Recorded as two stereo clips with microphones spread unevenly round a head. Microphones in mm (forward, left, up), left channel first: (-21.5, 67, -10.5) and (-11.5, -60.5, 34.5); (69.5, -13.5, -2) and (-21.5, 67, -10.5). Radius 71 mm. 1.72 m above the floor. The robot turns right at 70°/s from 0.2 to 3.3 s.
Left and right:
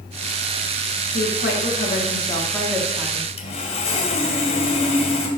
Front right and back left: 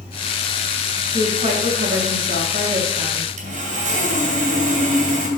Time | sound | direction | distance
1.1 | a woman speaking | 75° left | 2.5 m
3.4 | sawing | 145° left | 2.5 m